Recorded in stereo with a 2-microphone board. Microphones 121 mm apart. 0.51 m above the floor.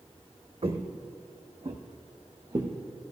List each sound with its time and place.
0.6 s footsteps: 55° right (ahead or behind), 1.1 m; by 2.7 s 35° right (ahead or behind), 2 m